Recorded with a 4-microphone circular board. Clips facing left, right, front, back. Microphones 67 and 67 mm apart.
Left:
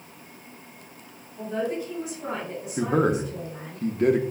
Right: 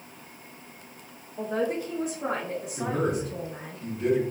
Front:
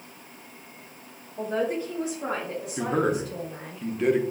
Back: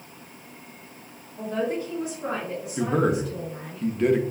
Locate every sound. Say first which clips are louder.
1.4 s a man speaking: right 1 dB, even; 55° right, 0.7 m
2.8 s a man speaking: left 5 dB, back 2 dB; 90° left, 0.6 m